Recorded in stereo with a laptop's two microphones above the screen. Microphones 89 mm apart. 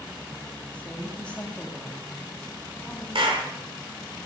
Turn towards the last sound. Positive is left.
turn(degrees=-80)